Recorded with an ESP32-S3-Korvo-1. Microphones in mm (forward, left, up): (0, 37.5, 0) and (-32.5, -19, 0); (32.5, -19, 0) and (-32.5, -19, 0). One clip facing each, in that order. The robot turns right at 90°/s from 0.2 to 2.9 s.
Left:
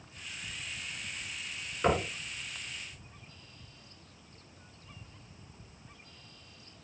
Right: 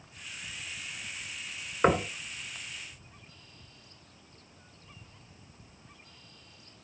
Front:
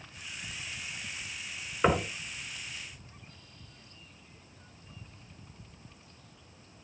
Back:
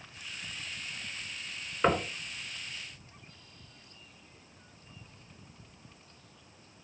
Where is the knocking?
85° right, 1.6 m; by 2.1 s 65° right, 1.6 m.